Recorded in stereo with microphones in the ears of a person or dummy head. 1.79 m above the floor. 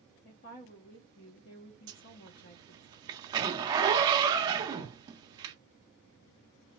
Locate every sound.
0.2 s a woman speaking: 40° left (ahead or behind), 0.6 m
1.9 s a zipper: 25° right (ahead or behind), 0.8 m